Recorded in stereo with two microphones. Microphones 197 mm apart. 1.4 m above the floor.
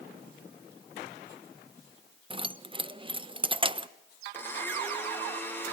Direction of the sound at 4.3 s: 10° left (ahead or behind).